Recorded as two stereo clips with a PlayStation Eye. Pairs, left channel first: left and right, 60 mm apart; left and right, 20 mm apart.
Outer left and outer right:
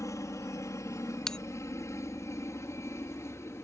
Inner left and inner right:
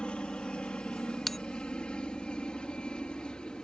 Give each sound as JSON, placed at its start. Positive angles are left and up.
{"t": 0.0, "sound": "a helicopter", "side_deg": 60}
{"t": 1.3, "sound": "a bell", "side_deg": 10}